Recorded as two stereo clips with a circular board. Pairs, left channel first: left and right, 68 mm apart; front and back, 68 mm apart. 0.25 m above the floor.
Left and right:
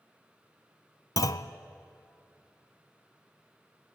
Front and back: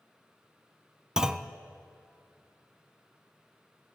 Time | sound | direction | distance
1.2 | a clunk | 100° left | 0.6 m